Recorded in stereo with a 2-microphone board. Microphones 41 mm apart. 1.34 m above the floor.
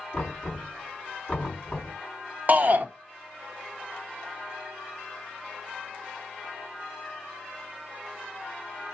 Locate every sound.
0.1 s knocking: 20° left (ahead or behind), 4 m
2.5 s a shout: 45° right (ahead or behind), 0.7 m